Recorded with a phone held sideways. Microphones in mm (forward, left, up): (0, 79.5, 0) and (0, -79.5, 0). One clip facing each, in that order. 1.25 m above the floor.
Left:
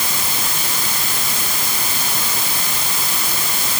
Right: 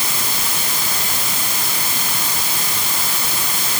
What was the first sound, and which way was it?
Only background noise.